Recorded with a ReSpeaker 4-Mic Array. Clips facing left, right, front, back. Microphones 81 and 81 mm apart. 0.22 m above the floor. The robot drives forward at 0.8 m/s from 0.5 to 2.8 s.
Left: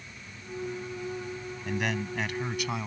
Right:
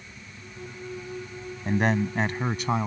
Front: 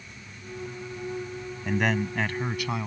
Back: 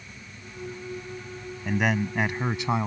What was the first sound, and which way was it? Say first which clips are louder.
A man speaking: right 7 dB, back 1 dB; 90° right.